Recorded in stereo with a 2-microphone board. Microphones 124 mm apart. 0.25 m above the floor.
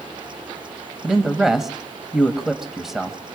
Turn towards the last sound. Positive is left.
turn(degrees=0)  # may be behind; listen again after turning